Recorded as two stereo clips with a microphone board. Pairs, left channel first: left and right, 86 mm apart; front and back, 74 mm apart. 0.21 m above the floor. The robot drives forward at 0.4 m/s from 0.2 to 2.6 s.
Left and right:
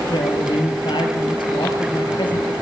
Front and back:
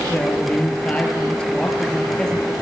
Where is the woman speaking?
65° left, 4 m; by 2.5 s 80° left, 3.5 m.